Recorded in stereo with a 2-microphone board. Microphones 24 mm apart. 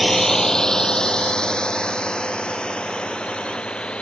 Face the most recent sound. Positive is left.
turn(degrees=40)  # may be behind; listen again after turning